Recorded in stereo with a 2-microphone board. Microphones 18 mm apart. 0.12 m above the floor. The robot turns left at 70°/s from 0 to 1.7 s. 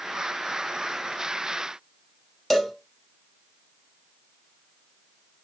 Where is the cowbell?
10° left (ahead or behind), 4 m.